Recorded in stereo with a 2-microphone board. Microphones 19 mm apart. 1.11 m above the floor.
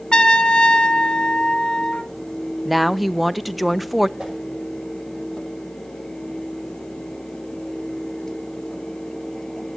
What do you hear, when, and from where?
0.1 s a trumpet: 50° left (ahead or behind), 1.2 m
2.6 s a woman speaking: centre (ahead or behind), 0.5 m
4.2 s a whoosh: 75° right (ahead or behind), 6 m